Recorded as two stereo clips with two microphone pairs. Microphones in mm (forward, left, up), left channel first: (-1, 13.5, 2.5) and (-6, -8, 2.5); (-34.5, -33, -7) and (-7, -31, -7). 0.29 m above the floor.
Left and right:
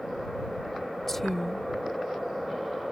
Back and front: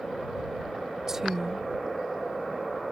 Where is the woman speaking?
35° left.